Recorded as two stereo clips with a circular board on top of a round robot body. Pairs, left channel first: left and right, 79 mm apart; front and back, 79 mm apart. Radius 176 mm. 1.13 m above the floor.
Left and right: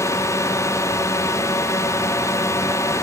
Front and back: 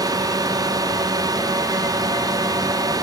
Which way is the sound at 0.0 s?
140° left.